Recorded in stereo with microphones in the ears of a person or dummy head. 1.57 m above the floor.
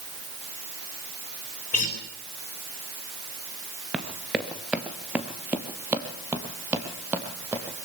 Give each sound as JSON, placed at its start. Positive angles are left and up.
{"t": 1.7, "sound": "a guitar", "side_deg": 40, "distance_m": 3.5}
{"t": 3.9, "sound": "running footsteps", "side_deg": -5, "distance_m": 1.6}